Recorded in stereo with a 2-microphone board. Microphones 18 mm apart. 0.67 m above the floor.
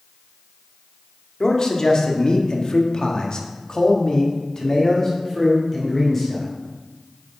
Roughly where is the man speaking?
Left.